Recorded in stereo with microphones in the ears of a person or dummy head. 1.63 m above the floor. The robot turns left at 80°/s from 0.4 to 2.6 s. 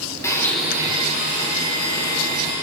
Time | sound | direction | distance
0.2 | a blender | 15° left | 2.5 m